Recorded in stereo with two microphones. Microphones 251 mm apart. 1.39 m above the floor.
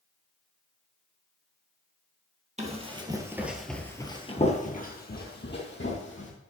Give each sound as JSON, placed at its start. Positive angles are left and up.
{"t": 2.6, "sound": "running footsteps", "side_deg": -25, "distance_m": 1.8}